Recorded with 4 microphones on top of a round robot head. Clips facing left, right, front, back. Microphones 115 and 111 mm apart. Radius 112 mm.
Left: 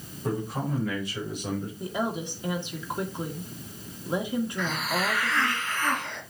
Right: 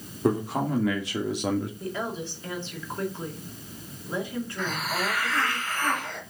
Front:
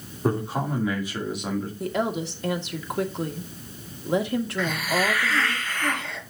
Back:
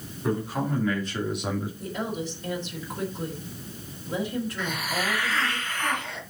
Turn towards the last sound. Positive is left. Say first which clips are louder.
# left 1 dB, front 5 dB
turn(degrees=-30)